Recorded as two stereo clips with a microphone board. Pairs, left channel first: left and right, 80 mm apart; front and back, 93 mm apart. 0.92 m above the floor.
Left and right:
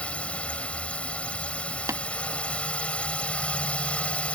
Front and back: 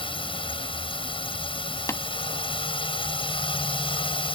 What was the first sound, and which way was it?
A drone, 15° left.